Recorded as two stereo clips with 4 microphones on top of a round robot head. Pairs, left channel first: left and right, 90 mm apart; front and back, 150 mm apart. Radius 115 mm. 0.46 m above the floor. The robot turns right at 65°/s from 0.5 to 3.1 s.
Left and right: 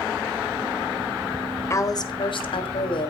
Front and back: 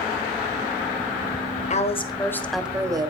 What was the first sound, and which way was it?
A woman speaking, 35° left.